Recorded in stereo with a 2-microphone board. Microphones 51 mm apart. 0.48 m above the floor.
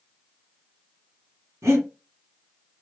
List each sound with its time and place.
1.6 s breathing: 75° right (ahead or behind), 2 m